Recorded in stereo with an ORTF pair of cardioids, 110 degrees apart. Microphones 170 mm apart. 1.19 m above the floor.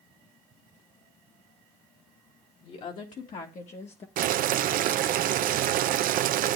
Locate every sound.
2.6 s a woman speaking: 55° left, 2 m; by 4.1 s 40° left, 1.0 m
4.2 s boiling: 55° right, 0.5 m